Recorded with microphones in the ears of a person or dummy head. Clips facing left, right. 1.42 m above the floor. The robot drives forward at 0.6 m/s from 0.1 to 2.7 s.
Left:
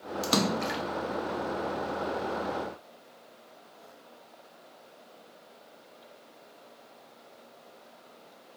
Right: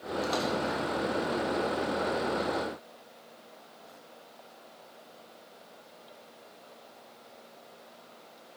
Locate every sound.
0.2 s a splash: 85° left, 2 m; by 0.8 s 80° left, 2 m